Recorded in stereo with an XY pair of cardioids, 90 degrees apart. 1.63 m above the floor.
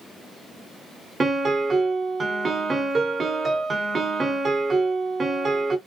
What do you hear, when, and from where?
1.2 s a piano: 40° right, 0.9 m